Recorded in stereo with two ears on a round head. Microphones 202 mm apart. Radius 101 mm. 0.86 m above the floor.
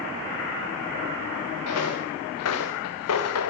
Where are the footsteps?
75° left (ahead or behind), 4 m.